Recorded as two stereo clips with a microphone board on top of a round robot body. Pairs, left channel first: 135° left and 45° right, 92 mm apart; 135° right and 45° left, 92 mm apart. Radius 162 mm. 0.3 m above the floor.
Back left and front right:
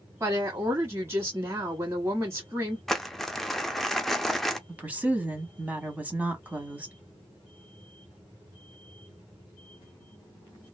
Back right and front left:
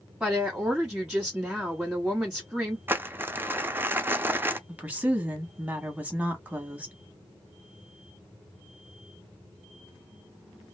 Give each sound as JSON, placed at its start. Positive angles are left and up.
{"t": 0.2, "sound": "a woman speaking", "azimuth_deg": -35, "distance_m": 1.6}
{"t": 2.9, "sound": "crumpling", "azimuth_deg": 55, "distance_m": 0.7}
{"t": 4.7, "sound": "a woman speaking", "azimuth_deg": 0, "distance_m": 1.3}